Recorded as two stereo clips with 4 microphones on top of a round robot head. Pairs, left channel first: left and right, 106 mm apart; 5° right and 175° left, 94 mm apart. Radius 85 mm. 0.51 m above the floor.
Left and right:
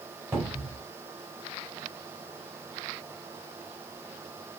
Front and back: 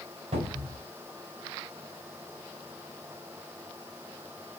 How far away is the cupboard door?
About 1.6 m.